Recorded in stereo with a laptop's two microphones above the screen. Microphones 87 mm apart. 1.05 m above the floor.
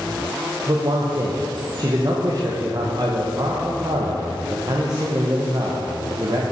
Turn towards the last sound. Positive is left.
turn(degrees=-45)  # may be behind; listen again after turning